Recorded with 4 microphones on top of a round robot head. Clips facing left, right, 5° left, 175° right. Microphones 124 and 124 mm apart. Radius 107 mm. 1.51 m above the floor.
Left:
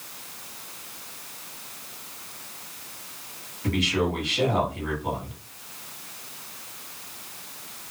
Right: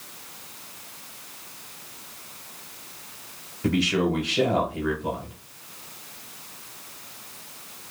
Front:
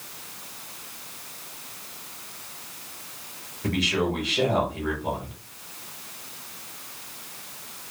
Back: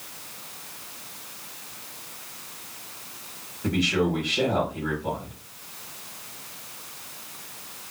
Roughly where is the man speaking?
Right.